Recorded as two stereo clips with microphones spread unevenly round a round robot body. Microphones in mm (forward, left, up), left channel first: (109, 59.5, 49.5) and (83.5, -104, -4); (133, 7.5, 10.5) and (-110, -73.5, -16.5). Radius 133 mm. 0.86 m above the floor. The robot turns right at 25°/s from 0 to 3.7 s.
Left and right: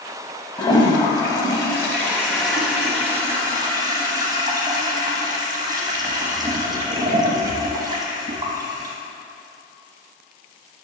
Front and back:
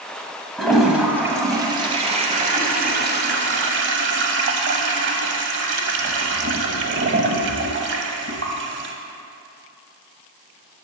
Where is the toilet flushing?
95° left, 0.8 m; by 8.9 s 175° left, 0.8 m.